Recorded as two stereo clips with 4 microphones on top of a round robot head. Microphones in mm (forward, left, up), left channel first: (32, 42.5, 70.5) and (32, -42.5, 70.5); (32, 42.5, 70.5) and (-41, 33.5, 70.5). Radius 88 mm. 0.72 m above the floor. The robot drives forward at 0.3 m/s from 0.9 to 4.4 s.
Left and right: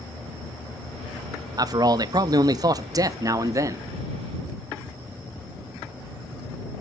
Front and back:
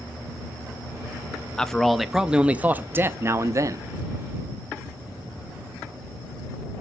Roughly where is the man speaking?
Right.